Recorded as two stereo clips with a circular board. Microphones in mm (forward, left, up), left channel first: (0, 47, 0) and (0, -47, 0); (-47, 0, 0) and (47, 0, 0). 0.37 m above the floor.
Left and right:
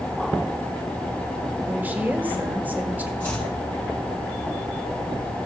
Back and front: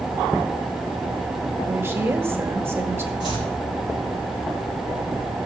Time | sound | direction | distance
1.7 | a woman speaking | 35° right | 1.5 m
3.2 | chopping | 160° left | 4.5 m